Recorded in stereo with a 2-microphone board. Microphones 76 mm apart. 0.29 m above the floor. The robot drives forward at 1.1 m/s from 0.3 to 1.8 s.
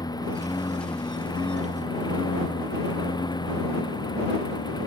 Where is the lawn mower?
60° left (ahead or behind); by 4.9 s 65° left (ahead or behind).